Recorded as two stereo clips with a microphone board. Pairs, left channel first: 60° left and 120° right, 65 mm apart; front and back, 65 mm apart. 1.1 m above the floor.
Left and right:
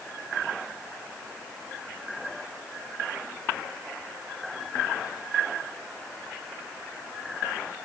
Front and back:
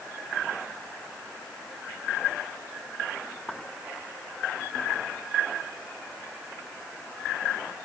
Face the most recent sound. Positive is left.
No sound to turn to.